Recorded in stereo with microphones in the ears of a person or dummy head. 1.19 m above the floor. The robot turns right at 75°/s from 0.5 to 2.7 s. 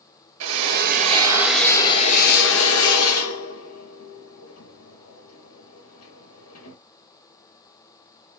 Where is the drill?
75° right (ahead or behind), 1.4 m; by 6.8 s 85° left, 1.4 m.